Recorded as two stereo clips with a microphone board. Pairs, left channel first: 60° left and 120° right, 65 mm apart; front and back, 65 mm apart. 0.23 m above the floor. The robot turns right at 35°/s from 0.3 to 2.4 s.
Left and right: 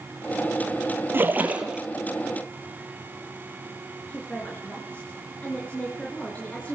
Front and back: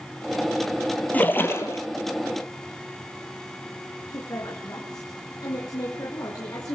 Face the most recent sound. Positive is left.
turn(degrees=-5)